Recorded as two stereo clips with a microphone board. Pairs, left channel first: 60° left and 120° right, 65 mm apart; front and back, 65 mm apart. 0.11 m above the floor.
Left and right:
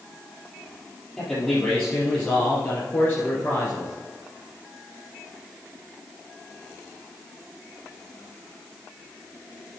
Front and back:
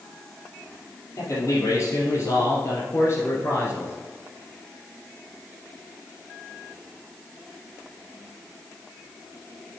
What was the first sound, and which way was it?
A man speaking, 15° right.